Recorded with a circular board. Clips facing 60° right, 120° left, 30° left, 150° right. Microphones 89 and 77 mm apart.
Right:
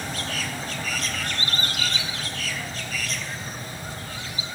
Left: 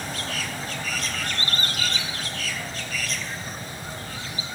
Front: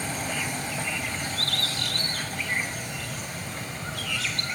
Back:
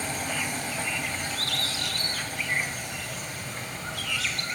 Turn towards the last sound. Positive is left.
turn(degrees=75)